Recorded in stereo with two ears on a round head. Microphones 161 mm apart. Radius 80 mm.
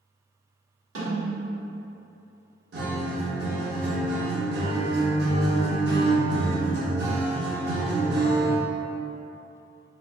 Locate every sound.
0.9 s a snare drum: 70° right (ahead or behind), 1.6 m
2.7 s a guitar: 60° right (ahead or behind), 0.9 m